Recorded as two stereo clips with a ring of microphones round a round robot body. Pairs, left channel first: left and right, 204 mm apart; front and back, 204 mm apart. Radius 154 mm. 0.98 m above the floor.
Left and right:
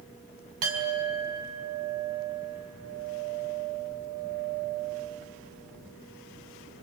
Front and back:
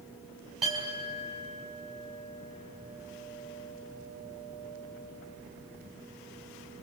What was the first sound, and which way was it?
A clink, 90° right.